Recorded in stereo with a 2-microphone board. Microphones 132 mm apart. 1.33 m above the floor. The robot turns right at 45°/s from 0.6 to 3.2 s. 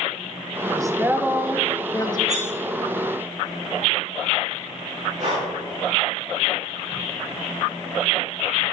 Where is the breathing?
65° right (ahead or behind), 3 m.